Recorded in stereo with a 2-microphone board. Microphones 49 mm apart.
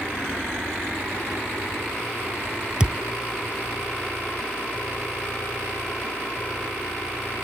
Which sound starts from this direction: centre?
A thud, at 2.8 s.